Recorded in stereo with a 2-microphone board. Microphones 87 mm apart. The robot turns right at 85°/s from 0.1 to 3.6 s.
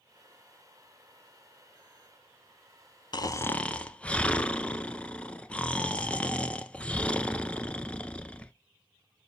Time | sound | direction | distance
3.1 | snoring | 125° left | 0.5 m